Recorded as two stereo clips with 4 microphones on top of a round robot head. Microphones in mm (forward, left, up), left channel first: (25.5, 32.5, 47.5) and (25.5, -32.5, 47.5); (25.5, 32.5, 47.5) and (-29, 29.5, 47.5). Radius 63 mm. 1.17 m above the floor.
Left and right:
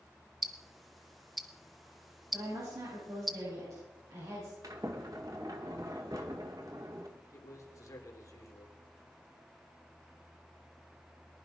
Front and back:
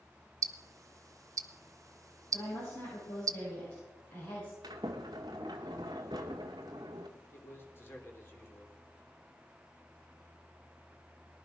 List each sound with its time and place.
0.4 s ticking: straight behind, 0.8 m
2.3 s a woman speaking: 55° right, 9 m
4.6 s a sliding door: 145° right, 1.0 m
7.3 s a man speaking: 50° left, 3 m